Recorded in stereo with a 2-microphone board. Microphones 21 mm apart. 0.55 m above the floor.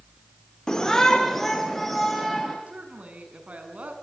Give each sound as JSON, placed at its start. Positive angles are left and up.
{"t": 0.7, "sound": "a shout", "side_deg": 30, "distance_m": 1.5}
{"t": 2.7, "sound": "a woman speaking", "side_deg": -70, "distance_m": 6.0}